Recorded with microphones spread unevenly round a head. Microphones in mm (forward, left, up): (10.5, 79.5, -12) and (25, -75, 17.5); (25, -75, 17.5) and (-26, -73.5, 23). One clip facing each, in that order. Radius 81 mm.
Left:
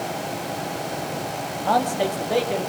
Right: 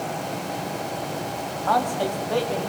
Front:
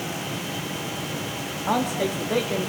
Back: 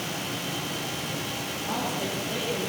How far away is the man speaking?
About 3.5 m.